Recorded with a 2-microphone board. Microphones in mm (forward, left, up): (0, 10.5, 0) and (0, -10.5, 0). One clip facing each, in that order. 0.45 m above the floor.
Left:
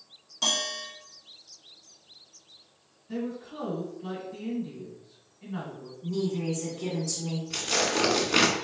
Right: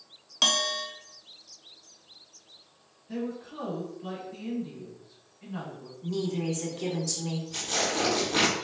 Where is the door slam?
No door slam in this recording.